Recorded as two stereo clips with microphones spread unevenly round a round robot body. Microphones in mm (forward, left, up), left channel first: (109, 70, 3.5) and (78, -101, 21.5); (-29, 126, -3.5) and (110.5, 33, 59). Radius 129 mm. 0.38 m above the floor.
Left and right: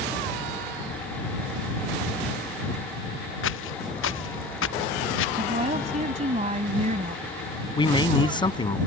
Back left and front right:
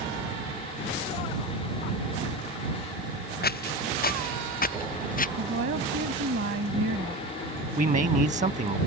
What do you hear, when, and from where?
3.4 s footsteps: 115° left; by 5.3 s 110° left
5.4 s a woman speaking: 55° right
7.8 s a man speaking: 20° left